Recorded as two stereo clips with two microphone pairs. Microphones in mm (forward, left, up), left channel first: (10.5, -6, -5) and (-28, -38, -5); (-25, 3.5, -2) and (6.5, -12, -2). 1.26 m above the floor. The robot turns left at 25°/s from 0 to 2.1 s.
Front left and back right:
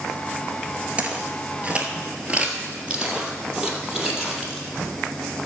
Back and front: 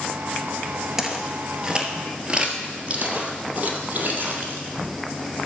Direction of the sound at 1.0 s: 95° right.